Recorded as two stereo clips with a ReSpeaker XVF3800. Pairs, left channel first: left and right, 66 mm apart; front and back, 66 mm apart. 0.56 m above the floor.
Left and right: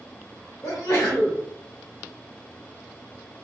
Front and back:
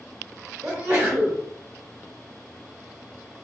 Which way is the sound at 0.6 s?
140° left.